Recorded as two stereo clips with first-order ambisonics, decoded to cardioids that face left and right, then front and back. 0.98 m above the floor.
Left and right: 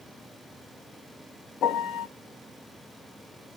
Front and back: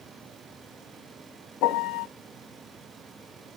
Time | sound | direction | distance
1.6 | a piano | 35° left | 0.7 m